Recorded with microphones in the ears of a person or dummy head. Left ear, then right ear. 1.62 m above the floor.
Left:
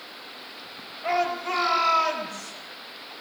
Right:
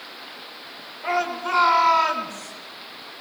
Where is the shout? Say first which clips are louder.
Right 1 dB; 40° right (ahead or behind), 7 m; by 2.5 s 35° right (ahead or behind), 6.5 m.